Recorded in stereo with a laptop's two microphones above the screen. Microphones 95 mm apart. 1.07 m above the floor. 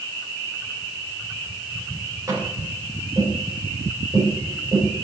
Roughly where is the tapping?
Right.